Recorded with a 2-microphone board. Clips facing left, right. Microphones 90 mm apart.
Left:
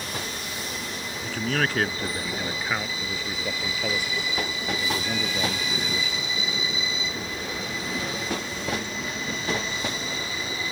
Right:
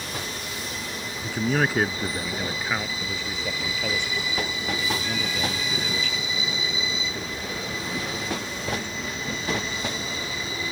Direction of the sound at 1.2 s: 15° right (ahead or behind).